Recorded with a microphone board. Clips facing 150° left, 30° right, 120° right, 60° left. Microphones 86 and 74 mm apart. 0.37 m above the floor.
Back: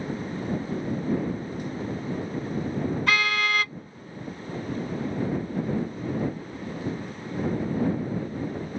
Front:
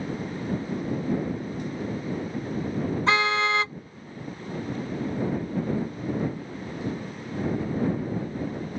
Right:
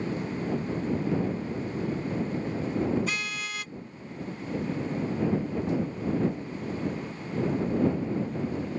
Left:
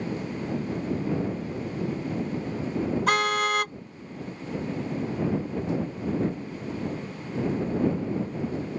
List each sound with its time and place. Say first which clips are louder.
3.1 s a car horn: front 4 dB, left 10 dB; 35° left